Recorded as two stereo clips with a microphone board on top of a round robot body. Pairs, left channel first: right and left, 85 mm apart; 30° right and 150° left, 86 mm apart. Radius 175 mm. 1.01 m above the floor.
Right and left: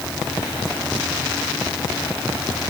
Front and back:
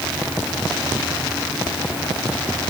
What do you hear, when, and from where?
Only background noise.